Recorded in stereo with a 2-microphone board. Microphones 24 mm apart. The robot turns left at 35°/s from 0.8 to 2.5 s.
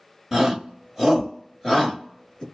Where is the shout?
10° right (ahead or behind), 1.1 m; by 2.4 s 25° left (ahead or behind), 1.1 m.